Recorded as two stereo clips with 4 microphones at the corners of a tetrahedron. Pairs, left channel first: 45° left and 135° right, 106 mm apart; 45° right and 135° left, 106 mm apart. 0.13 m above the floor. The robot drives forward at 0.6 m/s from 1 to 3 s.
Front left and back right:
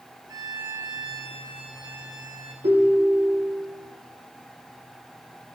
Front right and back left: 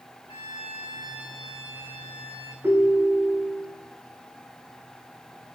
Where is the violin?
80° right, 3.5 m; by 2.5 s 95° right, 3.5 m.